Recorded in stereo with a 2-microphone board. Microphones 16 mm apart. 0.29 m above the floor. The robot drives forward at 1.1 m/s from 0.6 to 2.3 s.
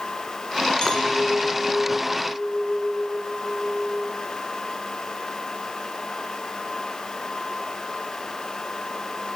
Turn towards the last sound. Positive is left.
turn(degrees=25)  # may be behind; listen again after turning